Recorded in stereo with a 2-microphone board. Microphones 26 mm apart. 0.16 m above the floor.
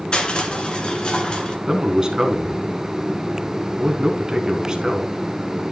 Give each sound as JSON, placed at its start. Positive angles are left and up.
{"t": 0.1, "sound": "crushing", "side_deg": 40, "distance_m": 1.7}
{"t": 1.7, "sound": "a man speaking", "side_deg": -20, "distance_m": 1.4}